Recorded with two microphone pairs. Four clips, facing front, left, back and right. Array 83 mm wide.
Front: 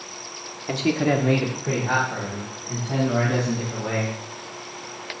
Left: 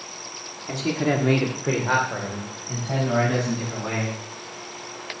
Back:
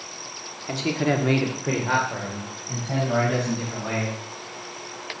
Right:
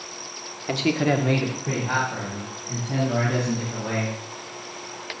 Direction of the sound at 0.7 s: 70° right.